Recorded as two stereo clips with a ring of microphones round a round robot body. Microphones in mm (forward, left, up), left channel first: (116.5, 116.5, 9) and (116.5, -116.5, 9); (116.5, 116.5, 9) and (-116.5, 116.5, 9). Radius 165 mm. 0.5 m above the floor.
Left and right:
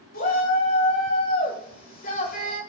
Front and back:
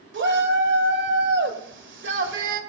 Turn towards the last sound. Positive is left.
turn(degrees=150)